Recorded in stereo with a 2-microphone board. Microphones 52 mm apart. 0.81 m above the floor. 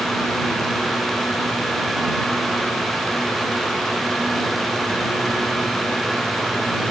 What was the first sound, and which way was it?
Only background noise.